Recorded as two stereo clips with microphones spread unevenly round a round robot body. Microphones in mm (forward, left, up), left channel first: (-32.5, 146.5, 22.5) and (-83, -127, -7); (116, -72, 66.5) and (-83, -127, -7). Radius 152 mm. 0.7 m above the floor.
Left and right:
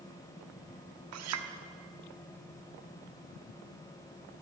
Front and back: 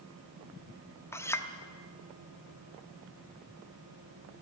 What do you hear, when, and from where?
1.1 s a clink: 70° right, 1.0 m